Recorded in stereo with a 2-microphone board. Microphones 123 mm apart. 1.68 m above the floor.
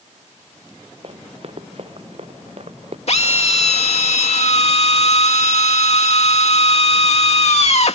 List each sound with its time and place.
1.0 s running footsteps: 50° right (ahead or behind); by 3.0 s 55° right (ahead or behind)
3.1 s a drill: 60° left (ahead or behind)